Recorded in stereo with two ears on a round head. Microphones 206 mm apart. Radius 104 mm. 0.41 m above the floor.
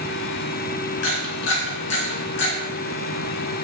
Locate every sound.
1.0 s a camera shutter: 55° left (ahead or behind), 3 m